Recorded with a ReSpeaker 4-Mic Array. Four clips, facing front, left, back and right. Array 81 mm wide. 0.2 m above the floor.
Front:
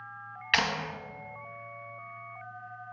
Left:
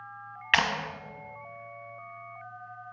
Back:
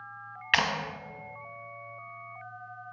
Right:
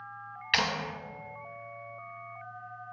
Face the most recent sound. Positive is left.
turn(degrees=105)